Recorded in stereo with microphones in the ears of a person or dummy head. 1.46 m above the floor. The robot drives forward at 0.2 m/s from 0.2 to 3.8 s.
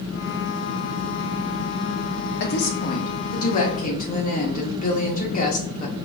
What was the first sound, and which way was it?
A woman speaking, 60° left (ahead or behind).